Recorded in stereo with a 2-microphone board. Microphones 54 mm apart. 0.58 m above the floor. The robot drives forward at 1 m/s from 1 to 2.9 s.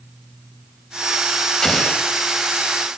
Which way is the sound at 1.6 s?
10° left (ahead or behind).